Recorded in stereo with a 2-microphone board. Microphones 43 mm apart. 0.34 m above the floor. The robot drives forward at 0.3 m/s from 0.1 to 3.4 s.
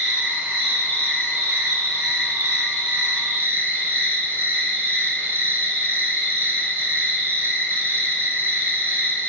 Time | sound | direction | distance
0.0 | an insect | 50° right (ahead or behind) | 1.0 m